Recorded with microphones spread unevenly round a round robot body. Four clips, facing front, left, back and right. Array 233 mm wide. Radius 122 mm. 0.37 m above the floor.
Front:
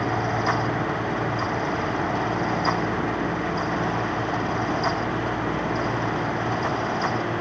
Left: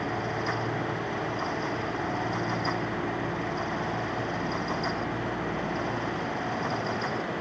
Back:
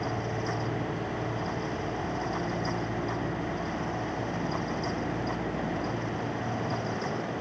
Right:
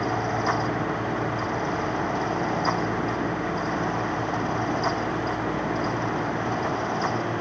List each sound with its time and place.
Only background noise.